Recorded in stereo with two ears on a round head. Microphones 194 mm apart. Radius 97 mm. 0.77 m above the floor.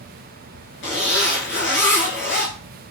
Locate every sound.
0.8 s a zipper: 55° left (ahead or behind), 5 m